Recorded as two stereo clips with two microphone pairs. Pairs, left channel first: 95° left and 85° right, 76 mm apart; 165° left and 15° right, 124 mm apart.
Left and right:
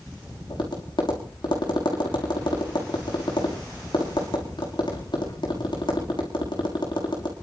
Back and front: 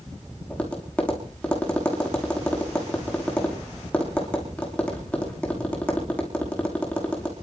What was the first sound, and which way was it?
Tapping, 85° left.